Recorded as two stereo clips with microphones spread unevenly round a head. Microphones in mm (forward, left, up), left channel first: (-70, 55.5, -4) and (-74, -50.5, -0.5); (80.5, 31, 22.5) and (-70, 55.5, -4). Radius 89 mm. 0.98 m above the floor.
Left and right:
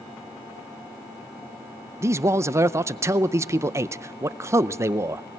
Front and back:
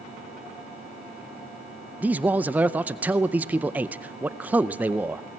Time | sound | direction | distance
2.0 | a man speaking | 135° right | 0.5 m